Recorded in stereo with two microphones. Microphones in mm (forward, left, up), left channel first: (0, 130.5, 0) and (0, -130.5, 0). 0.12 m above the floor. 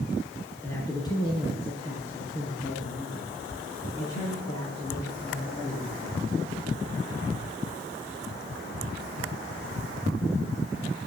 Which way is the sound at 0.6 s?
10° left (ahead or behind).